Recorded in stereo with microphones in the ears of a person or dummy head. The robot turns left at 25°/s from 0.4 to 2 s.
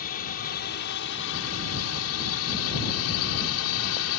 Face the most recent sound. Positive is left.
turn(degrees=85)